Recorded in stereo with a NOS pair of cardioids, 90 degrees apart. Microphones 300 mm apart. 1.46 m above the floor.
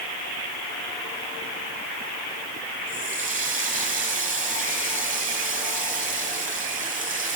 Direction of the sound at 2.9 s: 25° right.